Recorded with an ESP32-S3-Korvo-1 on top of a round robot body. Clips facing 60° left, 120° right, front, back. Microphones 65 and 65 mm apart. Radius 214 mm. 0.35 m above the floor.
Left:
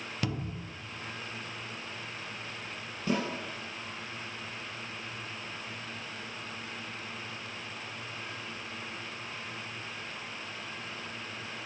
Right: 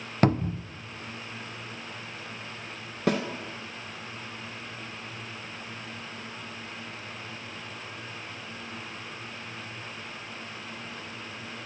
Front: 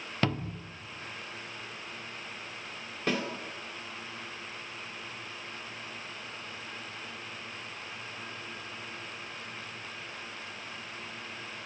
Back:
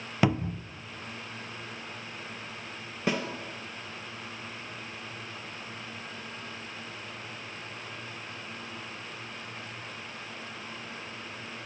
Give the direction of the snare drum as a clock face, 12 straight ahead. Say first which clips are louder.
Right 4 dB, back 1 dB; 3 o'clock.